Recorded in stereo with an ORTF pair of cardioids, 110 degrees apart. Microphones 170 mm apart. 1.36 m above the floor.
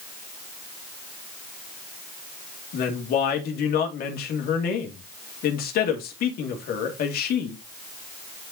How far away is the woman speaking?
About 2.5 m.